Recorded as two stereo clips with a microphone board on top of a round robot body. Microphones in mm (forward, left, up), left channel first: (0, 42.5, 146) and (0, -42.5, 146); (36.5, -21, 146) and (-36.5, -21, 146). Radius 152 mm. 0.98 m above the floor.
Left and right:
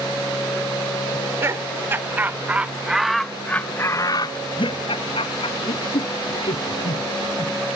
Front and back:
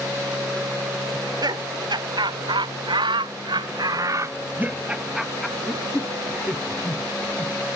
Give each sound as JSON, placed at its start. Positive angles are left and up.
{"t": 1.1, "sound": "laughter", "azimuth_deg": -150}